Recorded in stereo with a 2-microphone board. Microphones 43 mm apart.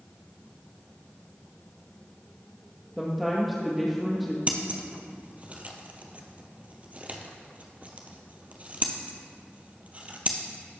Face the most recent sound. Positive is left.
turn(degrees=-35)  # may be behind; listen again after turning